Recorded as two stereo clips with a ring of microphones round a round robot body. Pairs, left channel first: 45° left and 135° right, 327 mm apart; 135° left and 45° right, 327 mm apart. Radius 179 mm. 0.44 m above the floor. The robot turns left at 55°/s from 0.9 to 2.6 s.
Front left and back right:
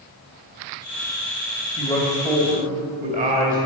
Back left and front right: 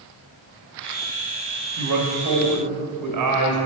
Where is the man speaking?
25° right, 2.5 m; by 3.6 s 70° right, 2.5 m.